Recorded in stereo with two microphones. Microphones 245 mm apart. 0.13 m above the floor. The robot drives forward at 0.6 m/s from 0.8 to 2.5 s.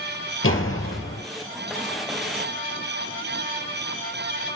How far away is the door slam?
About 2.5 m.